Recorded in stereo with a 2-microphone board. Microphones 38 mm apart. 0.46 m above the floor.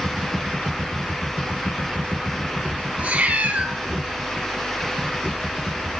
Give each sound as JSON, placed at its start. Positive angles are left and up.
{"t": 3.0, "sound": "a cat meowing", "side_deg": -35, "distance_m": 1.8}